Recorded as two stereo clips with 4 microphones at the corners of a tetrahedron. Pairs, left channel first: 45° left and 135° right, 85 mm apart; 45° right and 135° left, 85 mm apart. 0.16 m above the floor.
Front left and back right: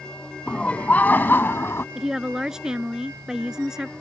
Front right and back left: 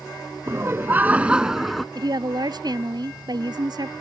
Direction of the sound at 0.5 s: 115° left.